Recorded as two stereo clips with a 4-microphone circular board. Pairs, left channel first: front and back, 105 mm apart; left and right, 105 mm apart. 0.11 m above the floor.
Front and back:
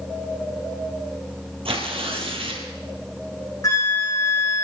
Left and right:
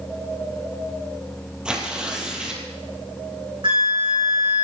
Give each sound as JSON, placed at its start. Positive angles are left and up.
{"t": 1.6, "sound": "tearing paper", "azimuth_deg": -170, "distance_m": 3.5}
{"t": 3.6, "sound": "a flute", "azimuth_deg": -55, "distance_m": 6.5}